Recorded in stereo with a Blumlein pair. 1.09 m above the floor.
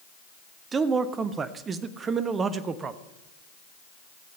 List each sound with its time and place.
0.7 s a man speaking: 20° right, 0.8 m